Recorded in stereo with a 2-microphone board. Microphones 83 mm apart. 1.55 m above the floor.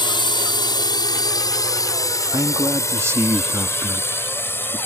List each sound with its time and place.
0.0 s a drone: 70° left (ahead or behind); by 4.9 s 25° left (ahead or behind)
2.3 s a man speaking: 35° right (ahead or behind)